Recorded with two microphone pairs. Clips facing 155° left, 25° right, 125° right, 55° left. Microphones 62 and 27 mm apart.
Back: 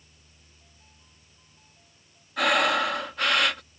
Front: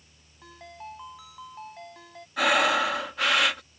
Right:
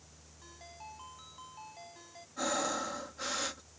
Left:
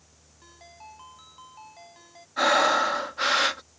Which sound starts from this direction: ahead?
A ringtone, at 0.4 s.